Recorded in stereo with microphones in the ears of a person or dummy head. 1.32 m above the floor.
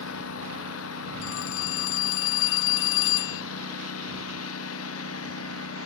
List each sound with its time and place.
0.0 s a lawn mower: 85° left; by 5.9 s 80° left
1.2 s a phone ringing: 65° left (ahead or behind)